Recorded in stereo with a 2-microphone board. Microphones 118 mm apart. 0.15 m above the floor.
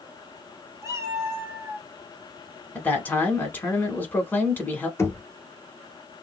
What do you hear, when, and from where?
0.8 s a cat meowing: 30° right (ahead or behind), 1.2 m; by 1.9 s 5° right (ahead or behind), 0.8 m
2.8 s a man speaking: 15° left (ahead or behind), 1.1 m
5.0 s knocking: 25° left (ahead or behind), 0.8 m